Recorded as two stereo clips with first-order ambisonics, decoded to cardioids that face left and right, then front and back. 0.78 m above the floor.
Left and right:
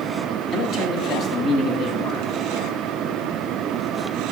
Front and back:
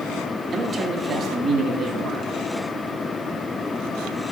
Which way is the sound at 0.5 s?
130° left.